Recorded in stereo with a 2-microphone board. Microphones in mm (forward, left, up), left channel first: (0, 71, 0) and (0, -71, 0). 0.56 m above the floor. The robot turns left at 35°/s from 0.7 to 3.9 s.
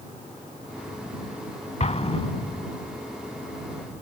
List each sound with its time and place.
1.8 s an explosion: 55° left (ahead or behind); by 2.7 s 30° left (ahead or behind)